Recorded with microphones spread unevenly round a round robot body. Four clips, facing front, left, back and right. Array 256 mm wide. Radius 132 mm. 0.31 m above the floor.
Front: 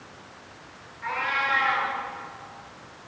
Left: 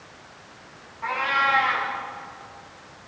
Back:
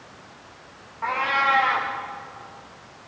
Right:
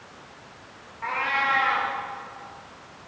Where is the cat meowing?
175° right, 8 m.